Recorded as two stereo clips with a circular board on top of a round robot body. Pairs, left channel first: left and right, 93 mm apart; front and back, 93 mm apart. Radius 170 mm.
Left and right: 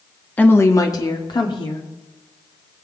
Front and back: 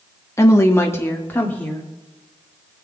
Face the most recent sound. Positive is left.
turn(degrees=70)